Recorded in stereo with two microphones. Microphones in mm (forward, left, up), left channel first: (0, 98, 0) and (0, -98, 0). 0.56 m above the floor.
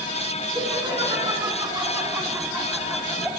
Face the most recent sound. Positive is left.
turn(degrees=-5)  # may be behind; listen again after turning